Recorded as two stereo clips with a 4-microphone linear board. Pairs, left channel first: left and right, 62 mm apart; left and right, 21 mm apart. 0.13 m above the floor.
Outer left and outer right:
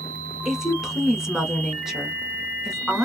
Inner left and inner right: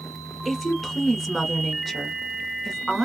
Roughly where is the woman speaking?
Centre.